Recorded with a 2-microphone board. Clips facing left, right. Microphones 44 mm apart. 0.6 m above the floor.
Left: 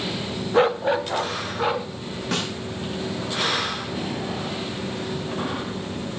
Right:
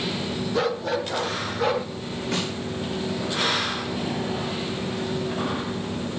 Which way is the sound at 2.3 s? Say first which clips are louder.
Left 1 dB; 80° left.